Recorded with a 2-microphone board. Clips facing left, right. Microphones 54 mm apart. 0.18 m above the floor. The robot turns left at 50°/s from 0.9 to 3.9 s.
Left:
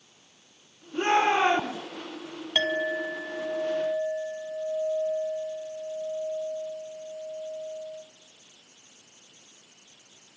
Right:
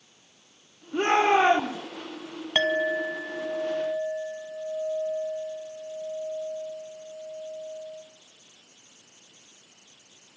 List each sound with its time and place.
0.9 s a shout: 70° right, 10 m; by 1.8 s 110° right, 10 m
2.5 s a clink: 115° right, 0.8 m; by 8.0 s 175° left, 0.8 m